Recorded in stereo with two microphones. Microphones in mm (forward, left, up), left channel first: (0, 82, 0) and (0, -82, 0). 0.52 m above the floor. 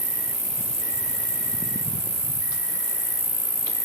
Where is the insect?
45° right (ahead or behind), 0.9 m.